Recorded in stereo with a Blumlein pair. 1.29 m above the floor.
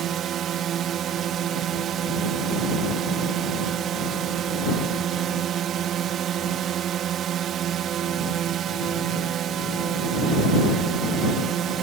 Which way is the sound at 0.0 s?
30° right.